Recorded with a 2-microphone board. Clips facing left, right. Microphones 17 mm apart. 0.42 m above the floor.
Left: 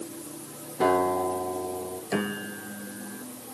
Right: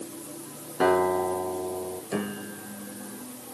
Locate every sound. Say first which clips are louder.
0.8 s a guitar: right 1 dB; 65° right (ahead or behind), 5 m
2.1 s a piano: left 4 dB; 30° left (ahead or behind), 0.6 m